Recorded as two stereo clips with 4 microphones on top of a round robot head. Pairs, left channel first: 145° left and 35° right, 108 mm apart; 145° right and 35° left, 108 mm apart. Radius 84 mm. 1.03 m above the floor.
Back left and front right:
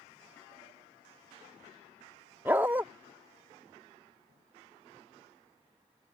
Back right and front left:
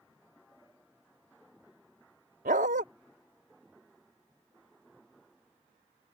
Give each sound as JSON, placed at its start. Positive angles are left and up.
{"t": 2.5, "sound": "a dog barking", "azimuth_deg": 40}